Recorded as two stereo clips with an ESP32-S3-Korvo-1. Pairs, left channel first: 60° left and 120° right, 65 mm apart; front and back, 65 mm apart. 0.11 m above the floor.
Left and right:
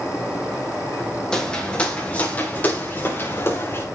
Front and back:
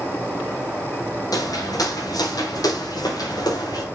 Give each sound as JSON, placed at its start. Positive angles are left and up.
{"t": 1.3, "sound": "footsteps", "azimuth_deg": -20, "distance_m": 4.5}